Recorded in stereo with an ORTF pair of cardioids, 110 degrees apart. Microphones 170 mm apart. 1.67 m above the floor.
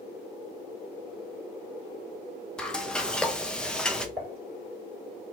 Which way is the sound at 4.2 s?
15° right.